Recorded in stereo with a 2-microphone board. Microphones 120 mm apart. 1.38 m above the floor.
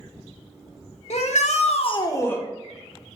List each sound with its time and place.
1.1 s a shout: 65° left (ahead or behind), 1.3 m; by 2.4 s 15° left (ahead or behind), 1.3 m